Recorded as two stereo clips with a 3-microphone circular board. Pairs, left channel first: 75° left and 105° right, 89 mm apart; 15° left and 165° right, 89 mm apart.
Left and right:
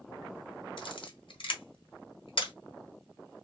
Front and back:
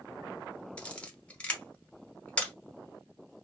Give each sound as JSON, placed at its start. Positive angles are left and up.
{"t": 0.8, "sound": "a camera shutter", "azimuth_deg": 90, "distance_m": 0.9}